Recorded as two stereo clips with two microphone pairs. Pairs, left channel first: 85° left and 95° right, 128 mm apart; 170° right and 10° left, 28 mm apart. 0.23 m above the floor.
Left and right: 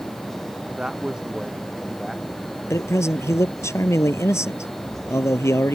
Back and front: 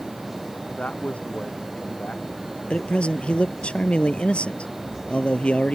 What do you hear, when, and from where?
0.8 s a man speaking: 175° right; by 2.6 s 175° left
2.7 s a man speaking: 155° left